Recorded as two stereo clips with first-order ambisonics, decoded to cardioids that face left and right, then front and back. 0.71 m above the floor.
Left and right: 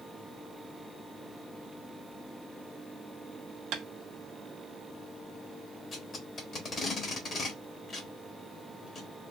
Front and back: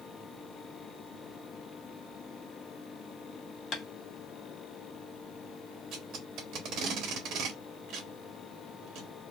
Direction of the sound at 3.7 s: 50° right.